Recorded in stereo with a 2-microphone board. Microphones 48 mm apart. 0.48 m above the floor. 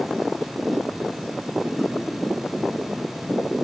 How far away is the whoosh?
About 3 m.